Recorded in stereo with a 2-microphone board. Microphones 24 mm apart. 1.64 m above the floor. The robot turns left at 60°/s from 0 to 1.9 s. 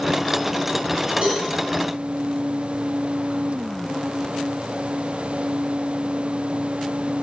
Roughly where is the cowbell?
Right.